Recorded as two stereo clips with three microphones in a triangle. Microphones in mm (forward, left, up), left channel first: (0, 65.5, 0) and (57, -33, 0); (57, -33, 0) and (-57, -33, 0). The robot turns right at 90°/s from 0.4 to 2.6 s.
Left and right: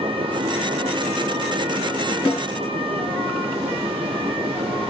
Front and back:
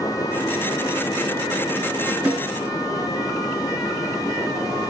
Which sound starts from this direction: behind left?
A snare drum, at 2.2 s.